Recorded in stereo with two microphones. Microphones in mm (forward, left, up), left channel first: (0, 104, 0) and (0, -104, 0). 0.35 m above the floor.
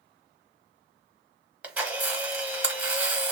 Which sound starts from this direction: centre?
A camera shutter, at 1.6 s.